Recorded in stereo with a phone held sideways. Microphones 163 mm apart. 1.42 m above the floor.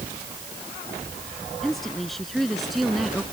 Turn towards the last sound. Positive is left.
turn(degrees=0)  # may be behind; listen again after turning